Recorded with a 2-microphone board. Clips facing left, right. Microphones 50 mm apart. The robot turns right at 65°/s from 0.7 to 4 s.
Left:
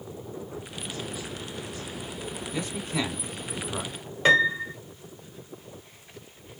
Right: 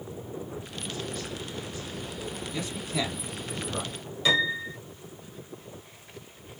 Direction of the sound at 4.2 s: 45° left (ahead or behind).